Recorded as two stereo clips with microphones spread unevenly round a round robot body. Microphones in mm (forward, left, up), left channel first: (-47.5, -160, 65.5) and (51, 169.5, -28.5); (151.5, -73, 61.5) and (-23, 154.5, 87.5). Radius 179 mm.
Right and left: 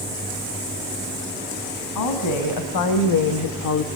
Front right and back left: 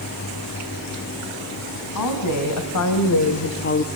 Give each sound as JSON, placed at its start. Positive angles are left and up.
{"t": 1.9, "sound": "a woman speaking", "azimuth_deg": -70, "distance_m": 3.5}